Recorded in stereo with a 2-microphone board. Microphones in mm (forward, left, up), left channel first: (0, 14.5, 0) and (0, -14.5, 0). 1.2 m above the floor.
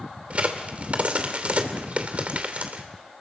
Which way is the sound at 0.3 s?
50° right (ahead or behind).